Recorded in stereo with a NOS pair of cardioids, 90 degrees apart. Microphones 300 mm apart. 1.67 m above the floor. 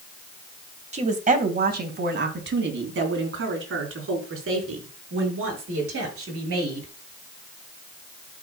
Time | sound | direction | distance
0.9 | a woman speaking | 20° right | 1.6 m